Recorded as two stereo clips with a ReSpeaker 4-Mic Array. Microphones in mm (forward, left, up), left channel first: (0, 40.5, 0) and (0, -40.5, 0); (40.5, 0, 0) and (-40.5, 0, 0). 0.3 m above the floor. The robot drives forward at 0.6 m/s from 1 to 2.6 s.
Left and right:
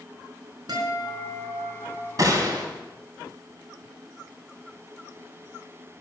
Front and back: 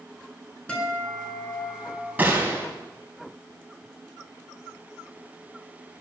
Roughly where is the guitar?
Right.